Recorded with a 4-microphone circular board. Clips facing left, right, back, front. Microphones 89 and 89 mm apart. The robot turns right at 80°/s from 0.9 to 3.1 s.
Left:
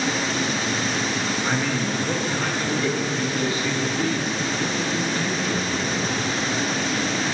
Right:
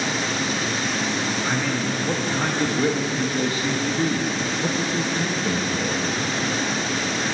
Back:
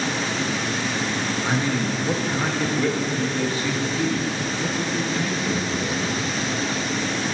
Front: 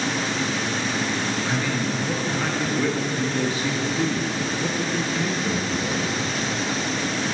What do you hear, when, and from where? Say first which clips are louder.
1.4 s a man speaking: even, back 2 dB; 170° left, 0.5 m; by 6.0 s 60° right, 0.5 m